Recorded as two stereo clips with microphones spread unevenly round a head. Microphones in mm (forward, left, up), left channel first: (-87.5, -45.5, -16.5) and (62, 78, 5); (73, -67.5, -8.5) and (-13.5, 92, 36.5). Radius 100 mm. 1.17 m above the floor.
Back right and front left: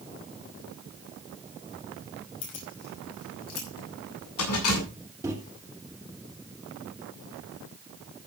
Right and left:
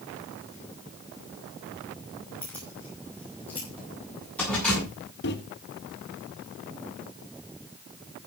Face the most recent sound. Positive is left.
turn(degrees=-40)